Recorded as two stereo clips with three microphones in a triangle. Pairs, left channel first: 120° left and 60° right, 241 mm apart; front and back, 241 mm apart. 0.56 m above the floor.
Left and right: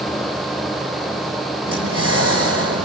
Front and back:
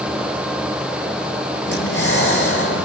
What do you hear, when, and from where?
1.7 s breathing: 40° right, 8 m